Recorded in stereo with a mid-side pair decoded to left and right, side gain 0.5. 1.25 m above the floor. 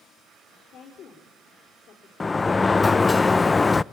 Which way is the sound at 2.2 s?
20° left.